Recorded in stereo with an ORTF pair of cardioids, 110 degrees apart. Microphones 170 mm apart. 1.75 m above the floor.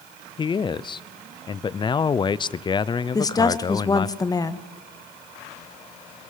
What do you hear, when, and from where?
0.4 s a man speaking: 25° left, 0.8 m
3.1 s a woman speaking: 20° left, 1.6 m